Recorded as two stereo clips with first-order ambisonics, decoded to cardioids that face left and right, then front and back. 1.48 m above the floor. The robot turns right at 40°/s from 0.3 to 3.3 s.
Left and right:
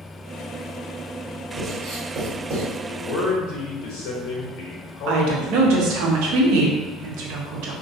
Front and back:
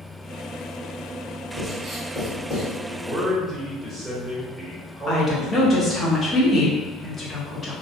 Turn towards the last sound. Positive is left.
turn(degrees=-70)